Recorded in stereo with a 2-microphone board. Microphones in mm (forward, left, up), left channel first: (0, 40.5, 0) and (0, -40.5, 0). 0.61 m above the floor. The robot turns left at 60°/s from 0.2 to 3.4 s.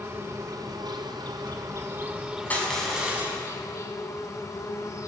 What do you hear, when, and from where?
0.0 s an insect: 45° right, 3.5 m; by 5.1 s 125° left, 3.5 m
2.5 s crushing: 20° left, 6 m; by 3.4 s 30° right, 6 m